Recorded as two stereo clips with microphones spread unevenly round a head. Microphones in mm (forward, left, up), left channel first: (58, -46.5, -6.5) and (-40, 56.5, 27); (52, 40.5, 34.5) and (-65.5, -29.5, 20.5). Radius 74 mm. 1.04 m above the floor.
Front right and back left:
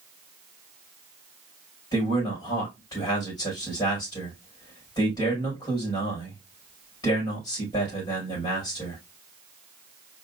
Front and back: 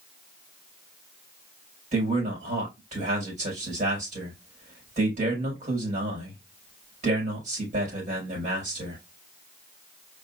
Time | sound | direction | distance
1.9 | a man speaking | 110° right | 4 m